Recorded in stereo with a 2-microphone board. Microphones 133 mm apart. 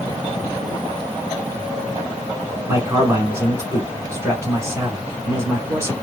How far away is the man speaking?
About 1.3 m.